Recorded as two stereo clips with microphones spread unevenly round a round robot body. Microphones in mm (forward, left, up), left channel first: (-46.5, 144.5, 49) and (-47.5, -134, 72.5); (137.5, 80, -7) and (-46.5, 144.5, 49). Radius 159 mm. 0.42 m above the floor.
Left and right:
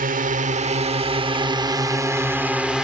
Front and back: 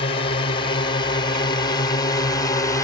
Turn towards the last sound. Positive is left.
turn(degrees=5)